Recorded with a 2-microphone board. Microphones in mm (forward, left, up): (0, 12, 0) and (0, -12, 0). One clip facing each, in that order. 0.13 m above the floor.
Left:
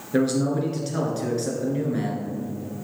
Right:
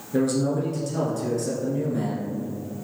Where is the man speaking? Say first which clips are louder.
Left 1 dB; 40° left (ahead or behind), 1.6 m.